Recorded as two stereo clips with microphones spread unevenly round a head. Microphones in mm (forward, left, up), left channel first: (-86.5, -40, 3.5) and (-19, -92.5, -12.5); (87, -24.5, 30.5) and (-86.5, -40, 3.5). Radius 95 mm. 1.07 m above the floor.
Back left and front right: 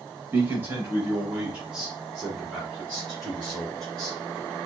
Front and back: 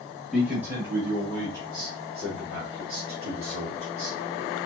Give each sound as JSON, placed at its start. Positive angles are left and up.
{"t": 0.3, "sound": "a man speaking", "azimuth_deg": -95, "distance_m": 1.9}